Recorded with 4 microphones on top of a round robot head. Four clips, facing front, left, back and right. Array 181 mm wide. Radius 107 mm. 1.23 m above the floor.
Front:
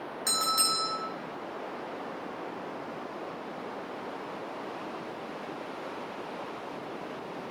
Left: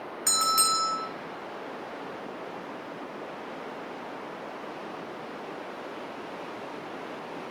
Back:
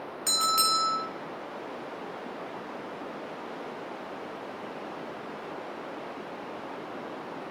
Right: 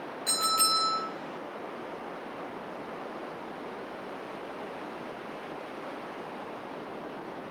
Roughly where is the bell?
Behind left.